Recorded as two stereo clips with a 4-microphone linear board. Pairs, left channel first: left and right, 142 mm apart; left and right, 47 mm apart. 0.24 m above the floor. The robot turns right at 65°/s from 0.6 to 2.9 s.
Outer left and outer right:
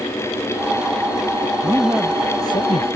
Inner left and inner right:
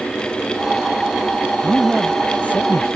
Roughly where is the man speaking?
Ahead right.